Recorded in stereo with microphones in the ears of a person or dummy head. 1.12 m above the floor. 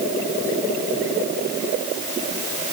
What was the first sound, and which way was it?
Only background noise.